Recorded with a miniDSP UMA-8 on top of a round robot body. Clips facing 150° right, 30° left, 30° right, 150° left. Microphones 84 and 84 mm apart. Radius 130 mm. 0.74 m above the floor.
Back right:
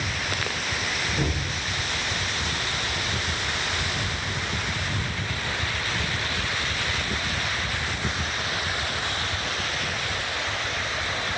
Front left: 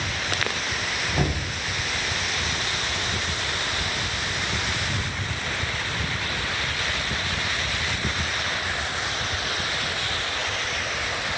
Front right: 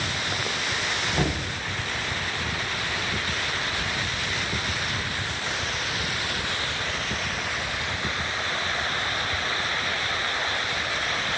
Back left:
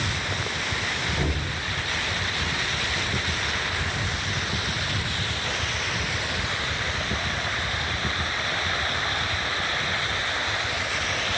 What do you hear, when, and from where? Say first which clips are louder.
1.1 s knocking: front left 4 dB, front right 2 dB; 25° left, 4 m